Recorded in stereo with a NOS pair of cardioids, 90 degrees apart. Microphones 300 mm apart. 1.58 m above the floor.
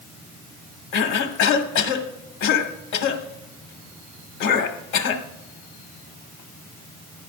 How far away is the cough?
About 1.8 m.